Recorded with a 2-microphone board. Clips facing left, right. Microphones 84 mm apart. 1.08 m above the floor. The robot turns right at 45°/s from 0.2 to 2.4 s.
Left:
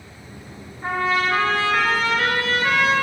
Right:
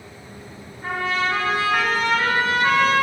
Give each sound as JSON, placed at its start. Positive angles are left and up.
{"t": 0.8, "sound": "a trumpet", "azimuth_deg": 150, "distance_m": 4.0}